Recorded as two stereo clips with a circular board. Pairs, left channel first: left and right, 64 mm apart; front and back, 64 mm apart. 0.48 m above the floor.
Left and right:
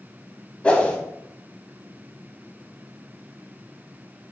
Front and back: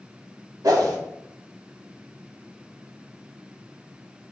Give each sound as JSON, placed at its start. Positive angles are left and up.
{"t": 0.6, "sound": "a whoosh", "azimuth_deg": 160, "distance_m": 1.1}